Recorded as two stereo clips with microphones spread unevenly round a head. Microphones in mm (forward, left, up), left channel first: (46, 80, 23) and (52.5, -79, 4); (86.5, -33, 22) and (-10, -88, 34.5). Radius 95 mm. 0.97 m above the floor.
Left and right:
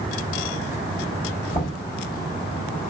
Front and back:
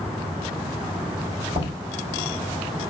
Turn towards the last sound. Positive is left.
turn(degrees=155)